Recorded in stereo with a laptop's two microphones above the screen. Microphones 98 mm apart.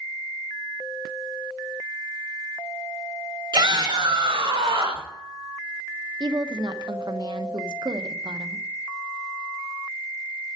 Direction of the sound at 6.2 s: 50° right (ahead or behind).